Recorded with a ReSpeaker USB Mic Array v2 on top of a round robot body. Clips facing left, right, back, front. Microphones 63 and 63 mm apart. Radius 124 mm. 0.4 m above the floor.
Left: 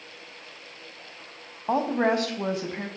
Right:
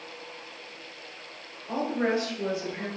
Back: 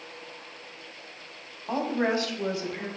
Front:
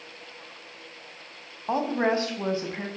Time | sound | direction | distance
1.7 | a woman speaking | 65° left | 3.5 m